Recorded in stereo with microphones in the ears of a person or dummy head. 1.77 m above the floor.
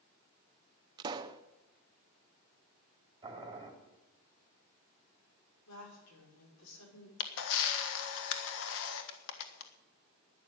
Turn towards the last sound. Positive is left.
turn(degrees=70)  # may be behind; listen again after turning